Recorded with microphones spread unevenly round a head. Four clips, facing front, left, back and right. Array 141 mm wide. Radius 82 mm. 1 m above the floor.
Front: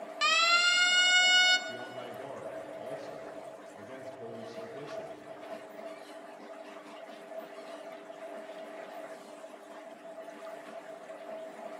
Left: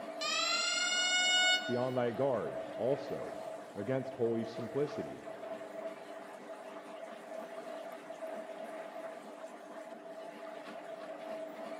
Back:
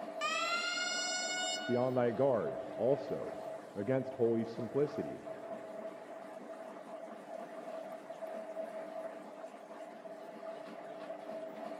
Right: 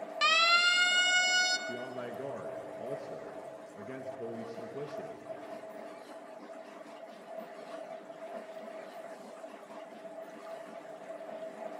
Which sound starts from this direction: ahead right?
A siren, at 0.2 s.